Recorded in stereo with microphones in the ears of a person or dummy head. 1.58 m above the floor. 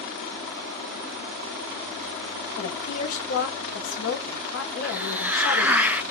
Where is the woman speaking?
85° left, 1.6 m.